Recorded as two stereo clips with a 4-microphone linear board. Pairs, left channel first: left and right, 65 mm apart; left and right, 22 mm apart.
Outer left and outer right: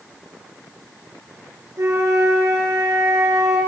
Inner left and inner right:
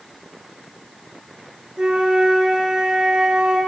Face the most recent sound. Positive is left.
turn(degrees=-45)  # may be behind; listen again after turning